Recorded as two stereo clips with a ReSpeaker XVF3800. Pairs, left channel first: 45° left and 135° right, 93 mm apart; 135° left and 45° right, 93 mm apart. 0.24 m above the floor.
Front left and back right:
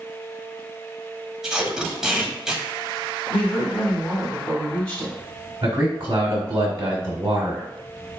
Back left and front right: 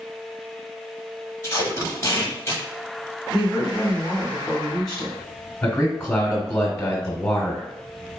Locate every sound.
1.4 s tape being pulled: 145° left, 1.1 m
3.3 s a woman speaking: 65° left, 1.6 m
5.6 s a man speaking: 170° right, 1.3 m